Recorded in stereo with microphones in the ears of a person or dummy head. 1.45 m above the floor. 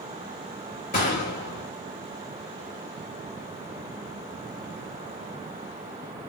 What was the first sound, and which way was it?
A gunshot, 40° left (ahead or behind).